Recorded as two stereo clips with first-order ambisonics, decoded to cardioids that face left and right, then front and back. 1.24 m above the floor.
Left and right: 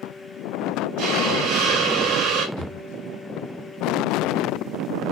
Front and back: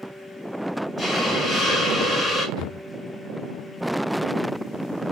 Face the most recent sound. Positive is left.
turn(degrees=115)